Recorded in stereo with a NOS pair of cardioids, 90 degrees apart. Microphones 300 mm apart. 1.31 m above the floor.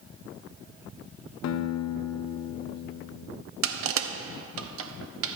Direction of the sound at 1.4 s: 65° left.